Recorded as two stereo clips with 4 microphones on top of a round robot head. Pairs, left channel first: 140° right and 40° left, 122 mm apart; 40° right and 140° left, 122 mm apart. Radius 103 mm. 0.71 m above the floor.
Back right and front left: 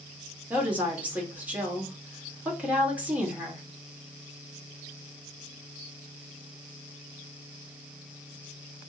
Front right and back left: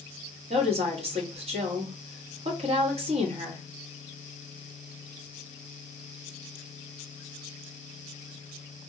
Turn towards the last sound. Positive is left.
turn(degrees=120)